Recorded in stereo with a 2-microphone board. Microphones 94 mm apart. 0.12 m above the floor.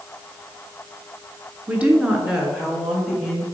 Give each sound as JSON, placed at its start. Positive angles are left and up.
{"t": 1.7, "sound": "a woman speaking", "side_deg": -15, "distance_m": 1.1}